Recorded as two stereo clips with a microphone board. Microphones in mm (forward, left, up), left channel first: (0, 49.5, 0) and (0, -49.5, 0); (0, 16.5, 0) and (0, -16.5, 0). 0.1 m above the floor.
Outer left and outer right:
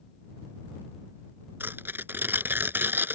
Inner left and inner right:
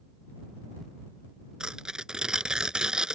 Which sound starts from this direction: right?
Tearing paper, at 1.6 s.